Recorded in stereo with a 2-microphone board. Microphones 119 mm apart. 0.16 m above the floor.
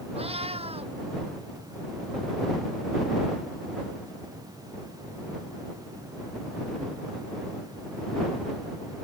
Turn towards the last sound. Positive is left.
turn(degrees=-60)  # may be behind; listen again after turning